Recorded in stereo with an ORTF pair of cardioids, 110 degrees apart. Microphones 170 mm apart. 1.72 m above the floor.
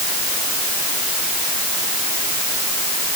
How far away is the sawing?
I don't hear sawing.